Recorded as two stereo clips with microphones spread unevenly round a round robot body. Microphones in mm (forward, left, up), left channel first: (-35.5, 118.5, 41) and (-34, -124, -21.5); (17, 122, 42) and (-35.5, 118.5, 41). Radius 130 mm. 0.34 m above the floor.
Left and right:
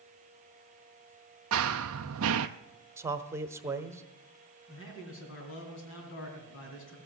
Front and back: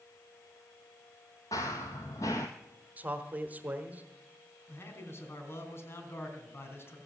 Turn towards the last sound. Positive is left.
turn(degrees=45)